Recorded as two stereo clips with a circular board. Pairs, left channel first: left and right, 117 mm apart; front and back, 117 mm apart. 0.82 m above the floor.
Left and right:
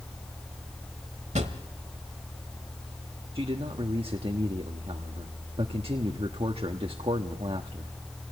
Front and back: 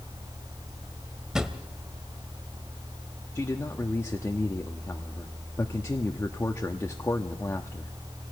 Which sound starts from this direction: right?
A drawer, at 1.4 s.